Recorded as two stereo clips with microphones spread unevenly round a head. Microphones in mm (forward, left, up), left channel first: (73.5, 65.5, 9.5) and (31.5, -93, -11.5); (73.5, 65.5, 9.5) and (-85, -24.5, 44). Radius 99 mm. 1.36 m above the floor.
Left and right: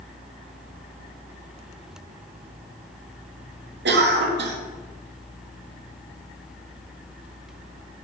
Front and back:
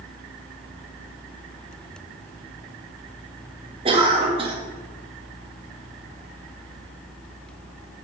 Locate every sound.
3.9 s a cough: 85° right, 1.7 m